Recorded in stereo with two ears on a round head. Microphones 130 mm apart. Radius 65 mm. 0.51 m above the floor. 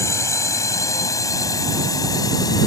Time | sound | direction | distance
0.0 | a drone | 20° left (ahead or behind) | ?